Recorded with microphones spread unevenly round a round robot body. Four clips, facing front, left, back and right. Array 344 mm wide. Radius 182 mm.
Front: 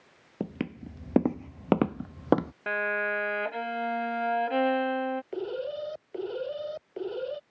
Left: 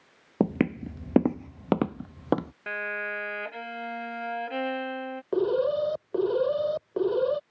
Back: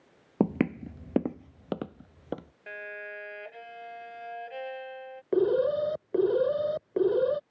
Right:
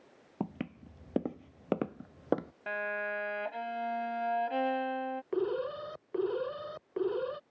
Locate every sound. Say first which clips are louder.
0.4 s footsteps: left 13 dB, back 8 dB; 135° left; by 2.5 s 35° left
2.7 s a violin: left 1 dB, front 11 dB; 10° left
5.3 s an alarm: left 10 dB, back 9 dB; 150° left